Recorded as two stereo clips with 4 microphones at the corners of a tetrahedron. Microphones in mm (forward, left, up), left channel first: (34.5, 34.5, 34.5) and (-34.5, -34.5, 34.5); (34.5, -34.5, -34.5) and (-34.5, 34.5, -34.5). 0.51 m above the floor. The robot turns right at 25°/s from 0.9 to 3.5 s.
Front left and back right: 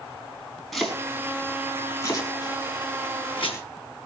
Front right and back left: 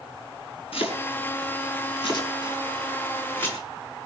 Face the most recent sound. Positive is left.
turn(degrees=20)